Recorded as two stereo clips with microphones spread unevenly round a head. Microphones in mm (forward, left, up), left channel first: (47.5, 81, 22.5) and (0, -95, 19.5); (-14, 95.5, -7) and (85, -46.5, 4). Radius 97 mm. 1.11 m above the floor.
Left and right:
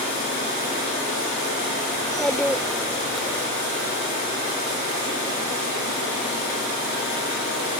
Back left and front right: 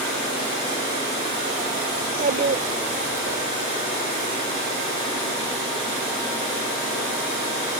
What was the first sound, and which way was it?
A child speaking, 15° right.